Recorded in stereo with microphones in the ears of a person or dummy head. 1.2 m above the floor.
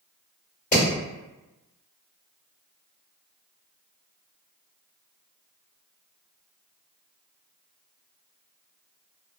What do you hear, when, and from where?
0.7 s hammering: 40° left (ahead or behind), 1.6 m